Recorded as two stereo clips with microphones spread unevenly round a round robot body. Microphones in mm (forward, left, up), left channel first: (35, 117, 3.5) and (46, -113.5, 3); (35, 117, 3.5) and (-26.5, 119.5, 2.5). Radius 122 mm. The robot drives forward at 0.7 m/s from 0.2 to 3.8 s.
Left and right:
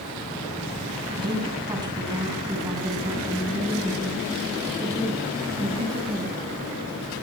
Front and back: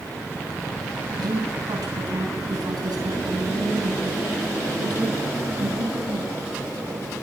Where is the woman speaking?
160° right, 8 m; by 6.3 s 165° right, 10 m.